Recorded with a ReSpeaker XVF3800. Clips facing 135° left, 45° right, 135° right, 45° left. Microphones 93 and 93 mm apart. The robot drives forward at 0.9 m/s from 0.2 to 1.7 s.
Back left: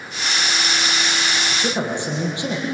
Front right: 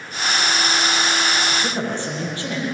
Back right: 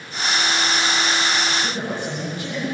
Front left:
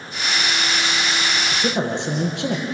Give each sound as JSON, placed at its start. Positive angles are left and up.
{"t": 1.5, "sound": "a man speaking", "azimuth_deg": 60, "distance_m": 6.5}